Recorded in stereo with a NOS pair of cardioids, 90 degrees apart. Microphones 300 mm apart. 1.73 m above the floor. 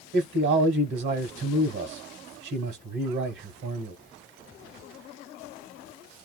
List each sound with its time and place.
0.1 s a man speaking: 45° right, 1.4 m